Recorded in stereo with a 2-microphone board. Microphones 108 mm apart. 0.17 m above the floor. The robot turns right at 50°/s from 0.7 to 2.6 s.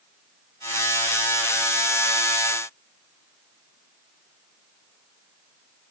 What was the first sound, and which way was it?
Only background noise.